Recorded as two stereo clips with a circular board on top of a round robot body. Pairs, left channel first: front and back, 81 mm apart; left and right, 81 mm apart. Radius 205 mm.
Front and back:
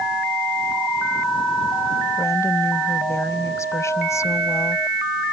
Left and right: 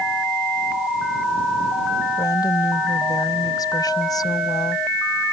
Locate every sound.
2.2 s a woman speaking: 55° left